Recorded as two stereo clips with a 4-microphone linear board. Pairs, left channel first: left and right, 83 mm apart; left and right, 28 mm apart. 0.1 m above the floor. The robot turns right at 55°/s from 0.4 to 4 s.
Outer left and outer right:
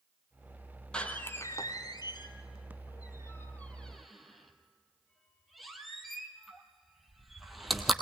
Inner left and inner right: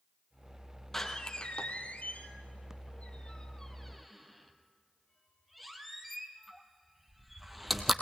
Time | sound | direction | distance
0.9 | a door slam | 10° left (ahead or behind) | 1.8 m